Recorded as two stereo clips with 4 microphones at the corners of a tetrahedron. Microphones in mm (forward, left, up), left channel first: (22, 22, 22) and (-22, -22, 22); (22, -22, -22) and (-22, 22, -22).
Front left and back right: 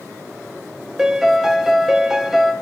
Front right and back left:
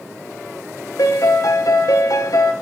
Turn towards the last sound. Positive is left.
turn(degrees=-50)